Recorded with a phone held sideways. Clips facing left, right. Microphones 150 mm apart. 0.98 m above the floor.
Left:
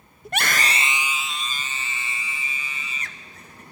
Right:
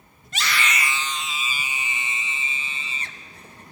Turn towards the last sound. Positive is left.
turn(degrees=-30)  # may be behind; listen again after turning